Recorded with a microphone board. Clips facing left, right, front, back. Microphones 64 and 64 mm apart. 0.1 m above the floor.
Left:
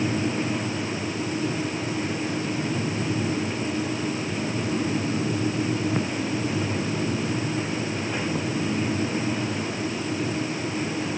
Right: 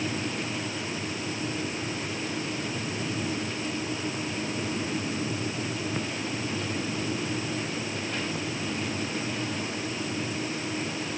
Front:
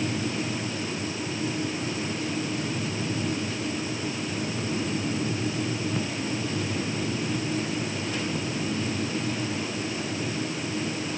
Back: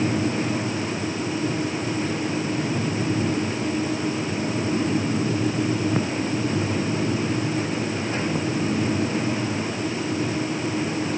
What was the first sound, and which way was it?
Only background noise.